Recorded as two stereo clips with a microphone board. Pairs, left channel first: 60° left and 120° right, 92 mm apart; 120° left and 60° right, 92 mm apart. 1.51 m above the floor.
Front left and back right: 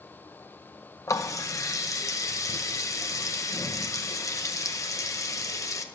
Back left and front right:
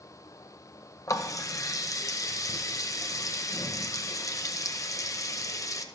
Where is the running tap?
90° left, 0.7 m.